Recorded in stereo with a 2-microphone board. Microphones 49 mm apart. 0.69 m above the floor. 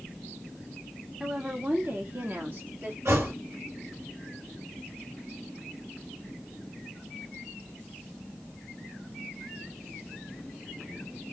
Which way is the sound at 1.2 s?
10° right (ahead or behind).